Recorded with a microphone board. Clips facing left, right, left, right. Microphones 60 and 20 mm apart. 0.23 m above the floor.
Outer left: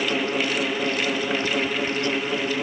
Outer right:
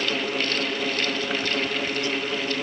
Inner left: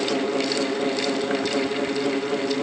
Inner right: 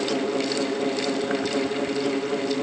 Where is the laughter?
I don't hear laughter.